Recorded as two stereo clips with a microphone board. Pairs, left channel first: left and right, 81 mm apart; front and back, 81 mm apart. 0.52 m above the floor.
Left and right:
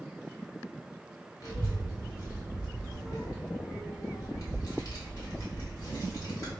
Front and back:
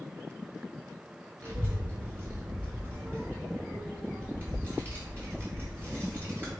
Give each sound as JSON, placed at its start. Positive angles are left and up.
{"t": 1.4, "sound": "a child speaking", "azimuth_deg": 125, "distance_m": 0.9}